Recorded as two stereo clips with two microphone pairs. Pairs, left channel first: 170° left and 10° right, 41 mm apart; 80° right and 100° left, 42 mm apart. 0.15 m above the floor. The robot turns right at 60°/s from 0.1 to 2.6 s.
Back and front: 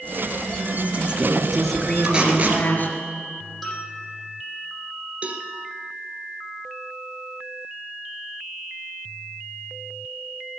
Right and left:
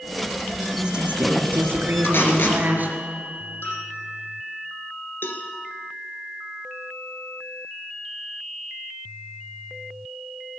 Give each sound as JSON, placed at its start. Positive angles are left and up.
{"t": 0.7, "sound": "a woman speaking", "azimuth_deg": 25, "distance_m": 3.0}
{"t": 2.0, "sound": "tape being pulled", "azimuth_deg": -80, "distance_m": 3.0}
{"t": 3.6, "sound": "a bell", "azimuth_deg": -100, "distance_m": 6.5}
{"t": 5.2, "sound": "a cowbell", "azimuth_deg": -65, "distance_m": 1.8}